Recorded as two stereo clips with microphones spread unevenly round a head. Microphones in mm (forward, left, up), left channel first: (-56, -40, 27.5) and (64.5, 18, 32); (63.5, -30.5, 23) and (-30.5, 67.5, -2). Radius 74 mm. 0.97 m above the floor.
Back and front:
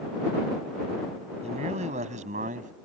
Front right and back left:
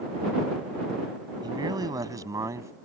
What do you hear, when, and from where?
1.4 s a man speaking: 75° left; by 2.7 s 65° left